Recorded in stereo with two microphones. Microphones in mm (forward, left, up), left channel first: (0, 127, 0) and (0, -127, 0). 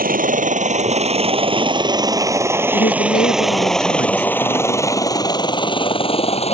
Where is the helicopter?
35° right (ahead or behind); by 6.5 s 25° left (ahead or behind).